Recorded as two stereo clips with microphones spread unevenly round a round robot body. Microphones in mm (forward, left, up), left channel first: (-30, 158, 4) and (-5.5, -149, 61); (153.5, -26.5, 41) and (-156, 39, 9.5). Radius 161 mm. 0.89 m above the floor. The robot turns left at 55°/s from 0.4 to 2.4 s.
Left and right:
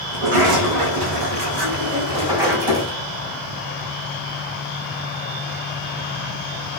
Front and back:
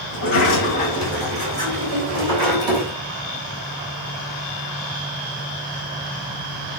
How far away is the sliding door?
About 5 m.